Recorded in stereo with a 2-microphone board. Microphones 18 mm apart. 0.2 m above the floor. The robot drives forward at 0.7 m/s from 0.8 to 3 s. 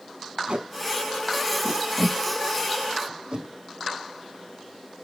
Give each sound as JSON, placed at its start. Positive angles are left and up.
{"t": 0.5, "sound": "tape being pulled", "side_deg": -60, "distance_m": 1.5}